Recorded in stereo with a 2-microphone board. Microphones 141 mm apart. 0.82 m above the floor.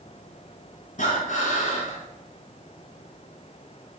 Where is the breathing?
65° left (ahead or behind), 1.4 m.